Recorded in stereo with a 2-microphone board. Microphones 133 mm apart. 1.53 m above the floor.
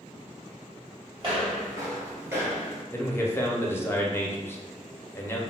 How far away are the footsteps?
About 1.7 m.